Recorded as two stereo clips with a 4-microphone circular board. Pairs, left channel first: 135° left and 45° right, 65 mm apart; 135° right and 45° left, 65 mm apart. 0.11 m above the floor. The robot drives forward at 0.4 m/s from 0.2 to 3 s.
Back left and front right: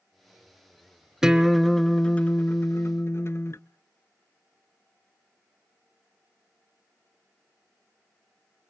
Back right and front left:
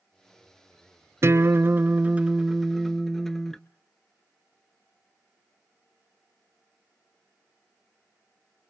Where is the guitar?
35° left, 0.6 m; by 3.6 s 145° left, 0.6 m.